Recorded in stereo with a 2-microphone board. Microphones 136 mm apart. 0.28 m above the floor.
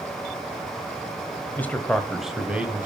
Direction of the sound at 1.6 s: 15° left (ahead or behind).